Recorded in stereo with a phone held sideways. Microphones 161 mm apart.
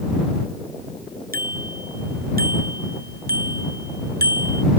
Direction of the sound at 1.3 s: 65° right (ahead or behind).